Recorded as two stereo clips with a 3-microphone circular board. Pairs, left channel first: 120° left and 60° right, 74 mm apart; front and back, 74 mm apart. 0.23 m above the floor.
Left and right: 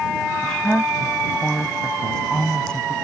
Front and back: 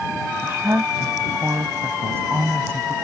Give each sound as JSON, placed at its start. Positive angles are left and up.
{"t": 0.4, "sound": "a woman speaking", "azimuth_deg": -170}